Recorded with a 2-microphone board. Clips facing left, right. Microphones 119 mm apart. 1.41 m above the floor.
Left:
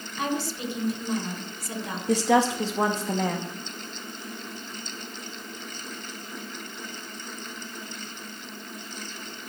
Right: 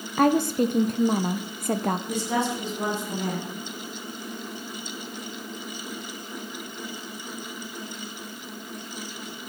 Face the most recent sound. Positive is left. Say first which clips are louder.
# left 5 dB
turn(degrees=80)